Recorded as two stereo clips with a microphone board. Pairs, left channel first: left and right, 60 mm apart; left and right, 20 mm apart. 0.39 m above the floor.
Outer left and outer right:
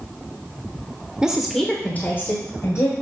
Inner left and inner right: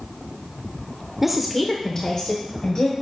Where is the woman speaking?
15° right (ahead or behind), 1.1 m; by 2.9 s 60° left (ahead or behind), 2.0 m.